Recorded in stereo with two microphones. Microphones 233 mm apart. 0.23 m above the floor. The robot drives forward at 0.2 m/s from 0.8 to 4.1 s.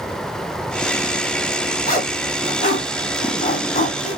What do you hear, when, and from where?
1.9 s a zipper: 35° left (ahead or behind), 1.8 m